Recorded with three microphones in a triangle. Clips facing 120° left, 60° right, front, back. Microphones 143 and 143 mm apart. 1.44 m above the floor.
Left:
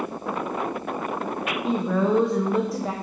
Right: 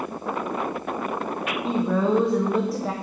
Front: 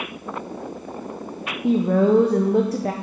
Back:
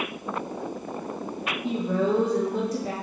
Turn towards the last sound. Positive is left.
turn(degrees=30)